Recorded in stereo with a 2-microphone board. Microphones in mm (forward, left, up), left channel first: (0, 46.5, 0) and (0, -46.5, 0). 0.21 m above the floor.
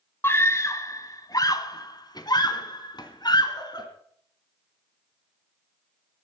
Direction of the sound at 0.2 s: 25° left (ahead or behind).